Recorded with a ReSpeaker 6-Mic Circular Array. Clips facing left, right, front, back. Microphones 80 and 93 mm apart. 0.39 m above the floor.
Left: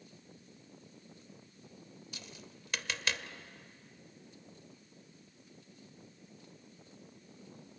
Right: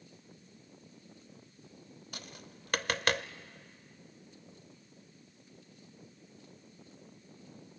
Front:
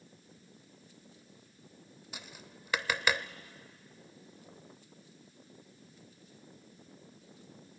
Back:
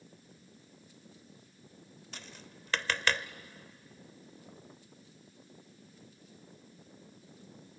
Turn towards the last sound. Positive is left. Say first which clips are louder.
# right 5 dB, front 1 dB
turn(degrees=-75)